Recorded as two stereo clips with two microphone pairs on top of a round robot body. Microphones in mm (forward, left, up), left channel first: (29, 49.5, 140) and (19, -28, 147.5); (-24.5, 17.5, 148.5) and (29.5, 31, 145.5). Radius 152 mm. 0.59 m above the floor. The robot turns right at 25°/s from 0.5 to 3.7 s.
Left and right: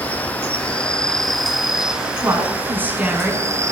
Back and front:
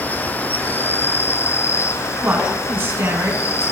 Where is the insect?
140° left, 1.1 m; by 3.7 s 140° right, 1.1 m.